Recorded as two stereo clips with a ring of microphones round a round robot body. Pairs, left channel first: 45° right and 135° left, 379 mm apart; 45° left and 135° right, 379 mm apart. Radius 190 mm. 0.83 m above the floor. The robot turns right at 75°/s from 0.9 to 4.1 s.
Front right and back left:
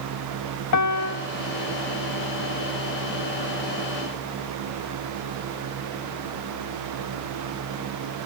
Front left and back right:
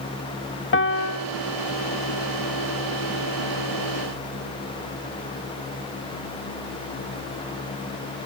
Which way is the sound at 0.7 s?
10° right.